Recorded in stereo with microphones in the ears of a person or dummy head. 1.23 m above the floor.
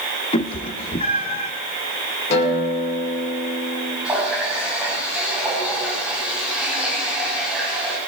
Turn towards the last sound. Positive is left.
turn(degrees=-15)  # may be behind; listen again after turning